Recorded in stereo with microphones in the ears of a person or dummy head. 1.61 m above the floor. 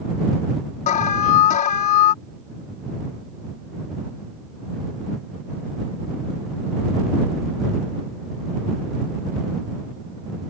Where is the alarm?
50° left (ahead or behind).